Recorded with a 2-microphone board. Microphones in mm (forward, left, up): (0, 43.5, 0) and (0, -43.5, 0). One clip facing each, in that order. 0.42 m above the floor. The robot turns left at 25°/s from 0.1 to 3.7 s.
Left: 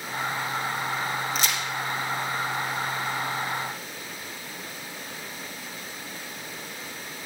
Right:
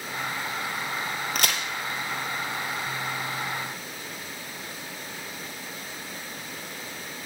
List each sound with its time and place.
1.4 s a crack: 60° right (ahead or behind), 1.7 m; by 1.6 s 70° right (ahead or behind), 1.7 m